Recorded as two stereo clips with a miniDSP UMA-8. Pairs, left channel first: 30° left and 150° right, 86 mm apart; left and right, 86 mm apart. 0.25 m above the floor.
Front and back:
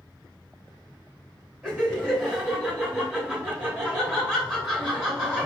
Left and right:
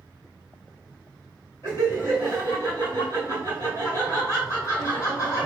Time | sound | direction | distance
1.6 | laughter | 125° left | 2.0 m